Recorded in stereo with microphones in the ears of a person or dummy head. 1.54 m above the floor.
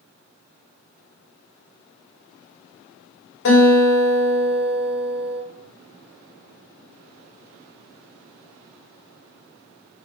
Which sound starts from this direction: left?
A guitar, at 3.5 s.